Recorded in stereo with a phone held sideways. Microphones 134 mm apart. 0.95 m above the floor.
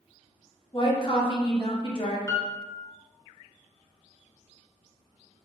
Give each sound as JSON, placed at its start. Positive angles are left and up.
{"t": 0.7, "sound": "a woman speaking", "side_deg": 40, "distance_m": 1.2}
{"t": 2.3, "sound": "a piano", "side_deg": 20, "distance_m": 0.7}